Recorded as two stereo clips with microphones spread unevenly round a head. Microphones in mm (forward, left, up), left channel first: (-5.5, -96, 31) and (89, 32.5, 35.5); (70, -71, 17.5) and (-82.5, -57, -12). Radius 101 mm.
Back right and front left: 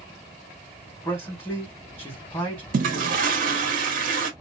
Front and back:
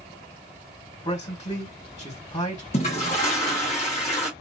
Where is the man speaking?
55° right, 2 m.